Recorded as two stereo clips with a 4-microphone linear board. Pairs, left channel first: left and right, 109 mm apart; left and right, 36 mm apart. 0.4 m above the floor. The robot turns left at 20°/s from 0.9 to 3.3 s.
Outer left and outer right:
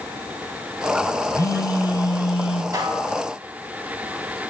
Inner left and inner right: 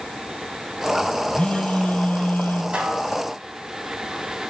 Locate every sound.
1.3 s a phone buzzing: 30° left (ahead or behind), 1.0 m; by 2.6 s 55° left (ahead or behind), 1.0 m
2.7 s dishes clattering: 35° right (ahead or behind), 2 m; by 3.1 s 40° right (ahead or behind), 2 m